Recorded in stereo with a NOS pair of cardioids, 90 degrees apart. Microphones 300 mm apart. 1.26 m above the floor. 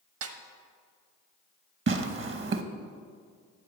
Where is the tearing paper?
40° right, 1.0 m.